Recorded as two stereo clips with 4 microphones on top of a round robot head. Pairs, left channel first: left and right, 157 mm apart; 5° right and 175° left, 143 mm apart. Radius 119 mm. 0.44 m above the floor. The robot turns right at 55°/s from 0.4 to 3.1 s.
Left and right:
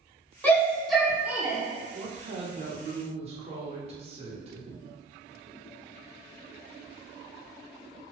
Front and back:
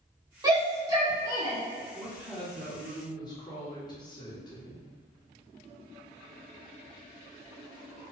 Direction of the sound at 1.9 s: 120° right.